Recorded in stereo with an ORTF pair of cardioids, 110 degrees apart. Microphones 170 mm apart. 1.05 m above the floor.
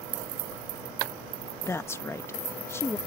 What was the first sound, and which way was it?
A woman speaking, 15° left.